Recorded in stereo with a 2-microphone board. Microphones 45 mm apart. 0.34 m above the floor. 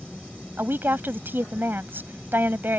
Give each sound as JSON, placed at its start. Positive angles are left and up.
{"t": 0.6, "sound": "a woman speaking", "side_deg": -55}